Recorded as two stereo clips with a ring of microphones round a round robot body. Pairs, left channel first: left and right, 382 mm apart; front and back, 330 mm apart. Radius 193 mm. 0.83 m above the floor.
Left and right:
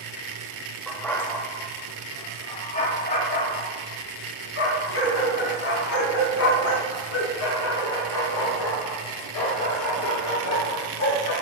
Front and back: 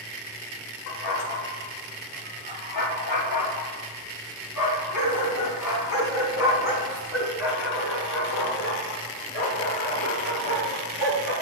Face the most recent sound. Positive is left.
turn(degrees=45)